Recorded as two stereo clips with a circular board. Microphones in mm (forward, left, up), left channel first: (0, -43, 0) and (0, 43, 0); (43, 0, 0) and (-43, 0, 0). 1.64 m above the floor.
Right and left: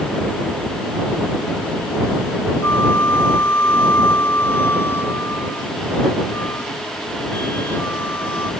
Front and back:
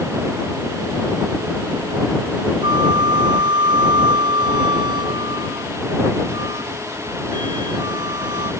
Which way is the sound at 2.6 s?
155° right.